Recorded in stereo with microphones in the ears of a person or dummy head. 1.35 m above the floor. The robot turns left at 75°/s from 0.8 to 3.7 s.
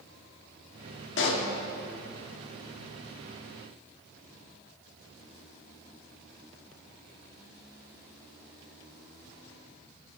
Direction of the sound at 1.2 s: 65° left (ahead or behind).